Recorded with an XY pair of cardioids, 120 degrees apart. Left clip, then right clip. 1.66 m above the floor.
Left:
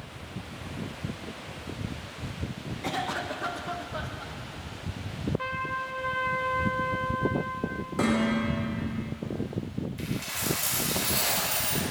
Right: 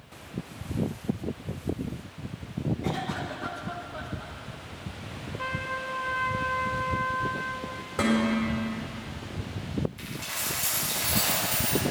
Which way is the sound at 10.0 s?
5° left.